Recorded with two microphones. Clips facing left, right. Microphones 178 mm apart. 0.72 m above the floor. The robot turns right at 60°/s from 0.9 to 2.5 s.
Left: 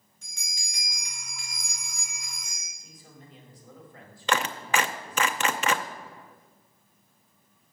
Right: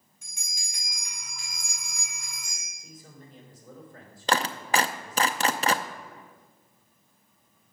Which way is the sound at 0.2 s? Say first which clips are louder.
Left 2 dB; 170° right.